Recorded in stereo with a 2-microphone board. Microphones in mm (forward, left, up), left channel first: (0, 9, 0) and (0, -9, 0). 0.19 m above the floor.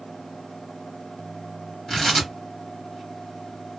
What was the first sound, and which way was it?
Tearing paper, 20° left (ahead or behind).